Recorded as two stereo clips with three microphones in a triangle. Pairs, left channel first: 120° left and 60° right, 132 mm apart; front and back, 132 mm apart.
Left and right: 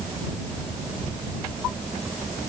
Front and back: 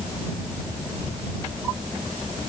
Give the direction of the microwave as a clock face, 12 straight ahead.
I don't hear a microwave.